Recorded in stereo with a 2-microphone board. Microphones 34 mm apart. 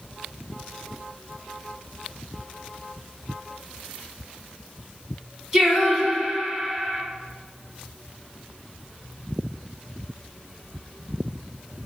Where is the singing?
10° right (ahead or behind), 1.7 m.